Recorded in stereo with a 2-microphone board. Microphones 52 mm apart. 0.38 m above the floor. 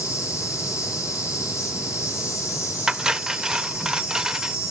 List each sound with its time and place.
0.0 s an insect: 65° left (ahead or behind), 9.5 m
2.9 s cutlery clinking: 10° right (ahead or behind), 0.5 m